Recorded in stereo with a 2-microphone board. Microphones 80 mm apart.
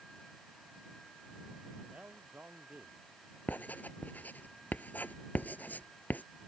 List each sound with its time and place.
1.9 s a man speaking: 20° right (ahead or behind)
3.5 s writing: 20° left (ahead or behind)